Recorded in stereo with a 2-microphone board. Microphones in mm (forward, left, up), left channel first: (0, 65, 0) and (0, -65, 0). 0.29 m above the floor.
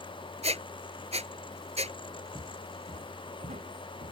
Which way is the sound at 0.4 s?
55° right (ahead or behind).